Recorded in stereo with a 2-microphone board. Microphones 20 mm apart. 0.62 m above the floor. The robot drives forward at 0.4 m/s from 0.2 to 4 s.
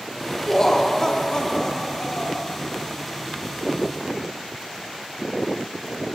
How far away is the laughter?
About 1.2 m.